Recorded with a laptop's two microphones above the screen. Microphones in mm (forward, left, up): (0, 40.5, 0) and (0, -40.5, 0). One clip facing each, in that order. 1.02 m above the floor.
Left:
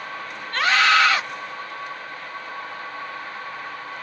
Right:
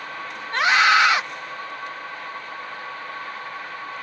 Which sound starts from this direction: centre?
A scream, at 0.5 s.